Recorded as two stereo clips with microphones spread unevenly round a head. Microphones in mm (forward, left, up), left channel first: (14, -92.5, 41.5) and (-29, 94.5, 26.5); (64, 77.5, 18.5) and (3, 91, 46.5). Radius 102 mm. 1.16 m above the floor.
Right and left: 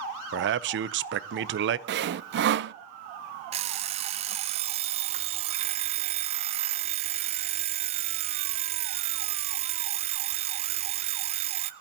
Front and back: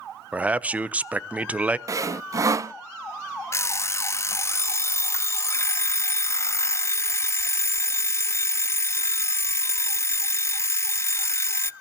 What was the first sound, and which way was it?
A man speaking, 90° left.